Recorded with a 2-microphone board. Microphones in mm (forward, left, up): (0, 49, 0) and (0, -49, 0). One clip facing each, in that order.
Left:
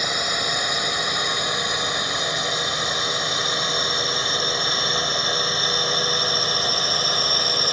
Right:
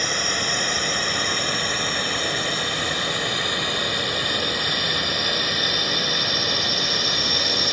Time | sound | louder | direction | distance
0.0 | a drone | even | 10° left (ahead or behind) | ?